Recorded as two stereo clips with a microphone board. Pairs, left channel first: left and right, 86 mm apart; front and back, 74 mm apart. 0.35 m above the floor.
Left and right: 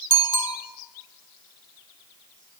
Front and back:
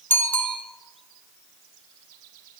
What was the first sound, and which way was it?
A bicycle bell, 60° left.